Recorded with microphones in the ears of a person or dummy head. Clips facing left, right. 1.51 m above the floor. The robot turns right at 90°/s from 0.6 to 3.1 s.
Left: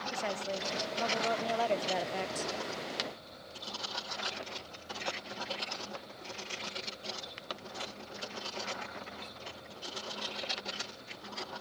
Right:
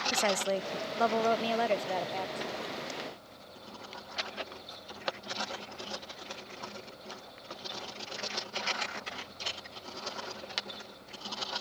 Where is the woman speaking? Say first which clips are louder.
Right 7 dB; 115° right, 0.5 m; by 2.5 s 55° left, 0.5 m.